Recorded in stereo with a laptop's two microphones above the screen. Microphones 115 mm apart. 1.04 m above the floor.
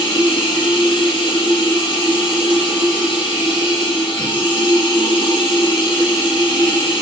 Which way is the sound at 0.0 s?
45° left (ahead or behind).